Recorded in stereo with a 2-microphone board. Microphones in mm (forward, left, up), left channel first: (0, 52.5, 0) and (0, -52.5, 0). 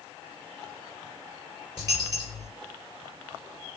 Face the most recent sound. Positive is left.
turn(degrees=-35)  # may be behind; listen again after turning